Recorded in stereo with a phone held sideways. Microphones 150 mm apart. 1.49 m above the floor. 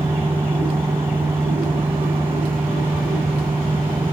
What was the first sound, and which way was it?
A fan, 15° right (ahead or behind).